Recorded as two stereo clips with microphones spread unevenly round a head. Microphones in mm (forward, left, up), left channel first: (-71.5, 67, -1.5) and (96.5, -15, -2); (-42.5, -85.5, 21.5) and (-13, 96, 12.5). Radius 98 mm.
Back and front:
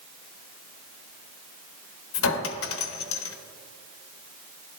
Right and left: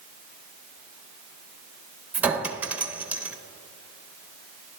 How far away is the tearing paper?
I don't hear tearing paper.